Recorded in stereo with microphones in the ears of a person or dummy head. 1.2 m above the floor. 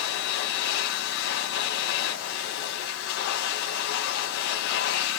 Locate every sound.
0.0 s a machine running: 70° left (ahead or behind), 5.5 m